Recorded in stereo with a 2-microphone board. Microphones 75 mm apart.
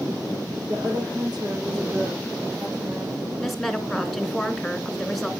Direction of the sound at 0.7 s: 65° right (ahead or behind).